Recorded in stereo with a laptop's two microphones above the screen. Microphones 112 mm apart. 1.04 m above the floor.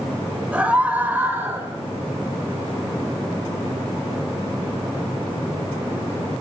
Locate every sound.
0.5 s a scream: 15° right (ahead or behind), 5 m; by 1.7 s 25° right (ahead or behind), 4 m